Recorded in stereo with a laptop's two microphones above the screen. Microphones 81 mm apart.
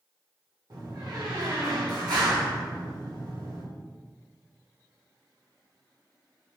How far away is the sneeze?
I don't hear a sneeze.